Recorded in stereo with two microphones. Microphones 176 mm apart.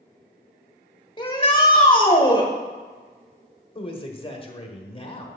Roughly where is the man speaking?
Left.